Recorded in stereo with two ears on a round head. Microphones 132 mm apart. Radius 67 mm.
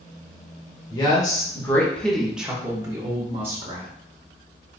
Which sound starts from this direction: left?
A woman speaking, at 0.9 s.